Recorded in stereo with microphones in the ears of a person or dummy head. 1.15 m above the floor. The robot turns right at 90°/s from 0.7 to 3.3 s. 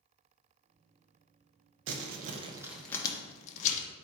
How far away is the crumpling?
About 0.5 m.